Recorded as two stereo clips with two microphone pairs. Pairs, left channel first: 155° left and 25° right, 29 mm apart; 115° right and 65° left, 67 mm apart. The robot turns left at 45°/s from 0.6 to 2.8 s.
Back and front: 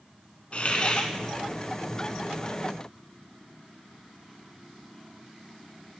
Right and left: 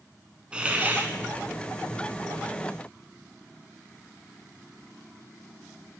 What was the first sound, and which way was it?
A hiss, 135° left.